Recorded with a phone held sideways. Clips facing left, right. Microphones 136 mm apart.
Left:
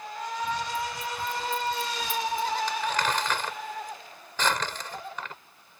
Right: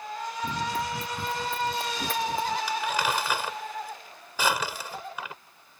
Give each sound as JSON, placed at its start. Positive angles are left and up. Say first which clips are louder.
{"t": 0.4, "sound": "running footsteps", "louder": "right 1 dB", "side_deg": -60}
{"t": 2.7, "sound": "crumpling", "louder": "even", "side_deg": -10}